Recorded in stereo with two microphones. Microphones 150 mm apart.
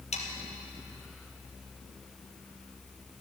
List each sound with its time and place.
0.1 s sawing: 45° left (ahead or behind), 3.5 m